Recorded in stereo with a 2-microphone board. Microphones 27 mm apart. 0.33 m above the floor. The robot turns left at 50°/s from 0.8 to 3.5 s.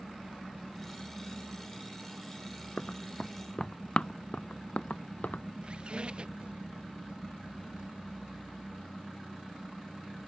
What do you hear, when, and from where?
2.8 s running footsteps: 40° left (ahead or behind); by 5.4 s 70° left (ahead or behind)
5.6 s a squeak: 40° right (ahead or behind)